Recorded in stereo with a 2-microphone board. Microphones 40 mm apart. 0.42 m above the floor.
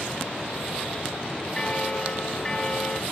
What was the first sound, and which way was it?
A bell, 20° left (ahead or behind).